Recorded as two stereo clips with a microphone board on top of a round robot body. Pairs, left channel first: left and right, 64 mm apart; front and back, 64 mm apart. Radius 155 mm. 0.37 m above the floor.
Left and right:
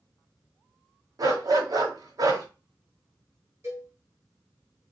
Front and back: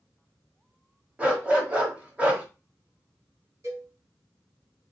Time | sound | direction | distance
1.2 | a dog barking | 110° right | 1.4 m
3.6 | a cowbell | 140° right | 2.5 m